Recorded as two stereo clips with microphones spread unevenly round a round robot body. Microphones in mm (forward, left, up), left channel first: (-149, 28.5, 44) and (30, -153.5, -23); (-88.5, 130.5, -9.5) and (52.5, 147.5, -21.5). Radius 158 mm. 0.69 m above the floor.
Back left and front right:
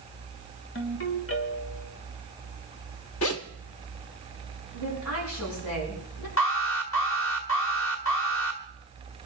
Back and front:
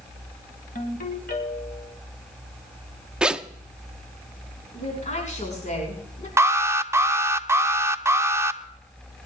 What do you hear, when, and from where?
0.8 s a ringtone: 175° left, 3.5 m
3.2 s a zipper: 90° left, 0.9 m
4.7 s a woman speaking: 155° left, 7 m
6.4 s an alarm: 80° left, 1.0 m